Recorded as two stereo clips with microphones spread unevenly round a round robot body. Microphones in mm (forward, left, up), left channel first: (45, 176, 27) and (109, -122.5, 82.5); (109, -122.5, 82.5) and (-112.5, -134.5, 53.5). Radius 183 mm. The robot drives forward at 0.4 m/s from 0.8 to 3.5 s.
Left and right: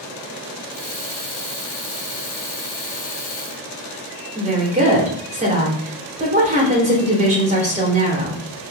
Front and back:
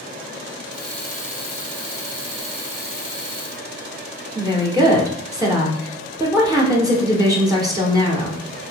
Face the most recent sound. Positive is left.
turn(degrees=-145)